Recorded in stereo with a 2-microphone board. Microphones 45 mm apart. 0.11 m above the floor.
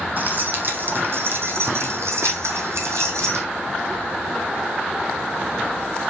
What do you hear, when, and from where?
0.2 s keys jangling: 40° right (ahead or behind), 3.5 m; by 3.5 s 80° right, 4 m